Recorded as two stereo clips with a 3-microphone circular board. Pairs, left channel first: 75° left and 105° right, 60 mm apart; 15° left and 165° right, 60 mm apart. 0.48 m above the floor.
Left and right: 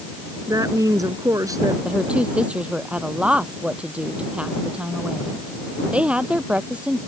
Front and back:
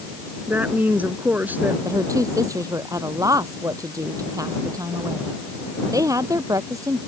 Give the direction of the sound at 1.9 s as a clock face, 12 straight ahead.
6 o'clock.